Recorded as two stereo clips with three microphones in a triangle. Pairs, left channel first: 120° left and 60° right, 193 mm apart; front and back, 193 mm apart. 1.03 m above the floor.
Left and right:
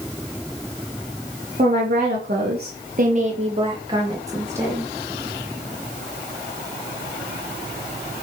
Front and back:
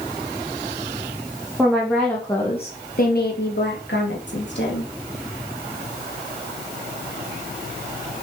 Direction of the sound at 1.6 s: 100° right.